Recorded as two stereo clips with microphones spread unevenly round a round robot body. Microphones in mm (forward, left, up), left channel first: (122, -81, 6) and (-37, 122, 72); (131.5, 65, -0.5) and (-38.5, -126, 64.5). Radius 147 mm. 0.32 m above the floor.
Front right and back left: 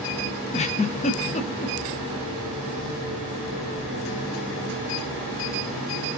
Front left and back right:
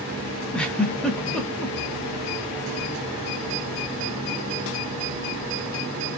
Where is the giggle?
20° right, 0.7 m.